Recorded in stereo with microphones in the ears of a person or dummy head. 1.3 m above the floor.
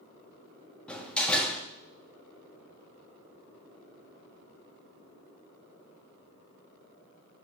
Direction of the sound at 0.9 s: 5° left (ahead or behind).